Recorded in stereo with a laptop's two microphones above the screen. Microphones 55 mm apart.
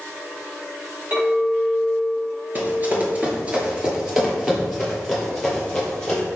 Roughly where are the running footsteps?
Right.